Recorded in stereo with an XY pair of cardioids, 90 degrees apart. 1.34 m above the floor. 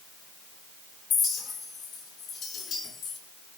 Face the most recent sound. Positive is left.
turn(degrees=65)